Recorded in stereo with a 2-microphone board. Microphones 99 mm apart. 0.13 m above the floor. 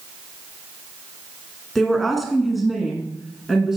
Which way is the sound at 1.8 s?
Centre (ahead or behind).